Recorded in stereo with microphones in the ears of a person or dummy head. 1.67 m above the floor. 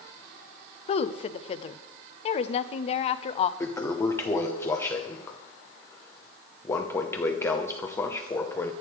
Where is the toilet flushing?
15° left (ahead or behind), 0.8 m.